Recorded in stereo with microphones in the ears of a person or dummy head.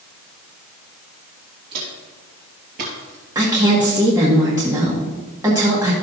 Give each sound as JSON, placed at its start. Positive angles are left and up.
{"t": 1.7, "sound": "footsteps", "side_deg": -55, "distance_m": 2.5}
{"t": 3.4, "sound": "a woman speaking", "side_deg": -15, "distance_m": 1.5}